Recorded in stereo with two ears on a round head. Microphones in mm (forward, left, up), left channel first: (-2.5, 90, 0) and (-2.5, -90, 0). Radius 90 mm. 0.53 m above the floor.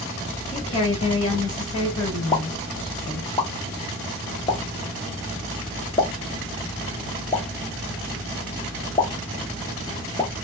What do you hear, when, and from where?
0.5 s a woman speaking: 35° left (ahead or behind), 1.4 m
2.3 s a pop: 20° left (ahead or behind), 0.7 m